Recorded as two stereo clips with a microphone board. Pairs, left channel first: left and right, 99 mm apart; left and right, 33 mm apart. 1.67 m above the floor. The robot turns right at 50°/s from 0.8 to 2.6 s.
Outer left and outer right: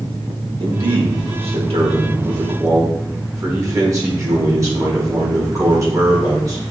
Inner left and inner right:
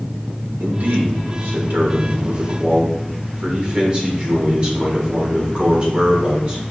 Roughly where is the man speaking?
Behind right.